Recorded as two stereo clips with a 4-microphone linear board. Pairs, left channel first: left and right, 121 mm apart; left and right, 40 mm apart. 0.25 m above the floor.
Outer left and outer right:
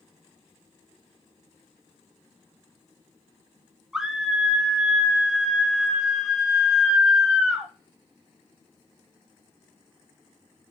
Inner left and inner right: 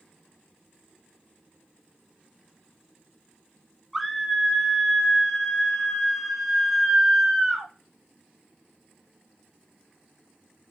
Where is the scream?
5° right (ahead or behind), 0.9 m.